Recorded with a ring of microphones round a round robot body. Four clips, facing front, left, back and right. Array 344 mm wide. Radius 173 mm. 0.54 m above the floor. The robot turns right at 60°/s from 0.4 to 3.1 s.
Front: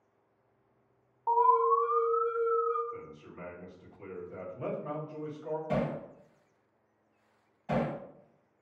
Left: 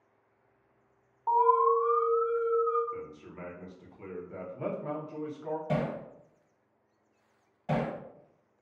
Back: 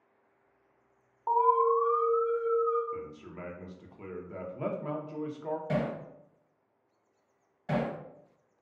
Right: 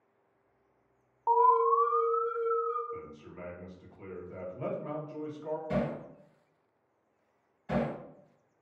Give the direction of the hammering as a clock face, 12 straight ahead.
8 o'clock.